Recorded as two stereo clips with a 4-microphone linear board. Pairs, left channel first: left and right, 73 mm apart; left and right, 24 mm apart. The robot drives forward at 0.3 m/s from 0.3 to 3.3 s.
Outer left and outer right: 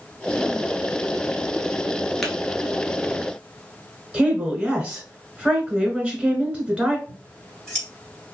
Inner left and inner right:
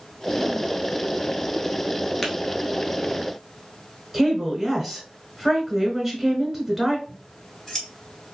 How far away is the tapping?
About 0.9 m.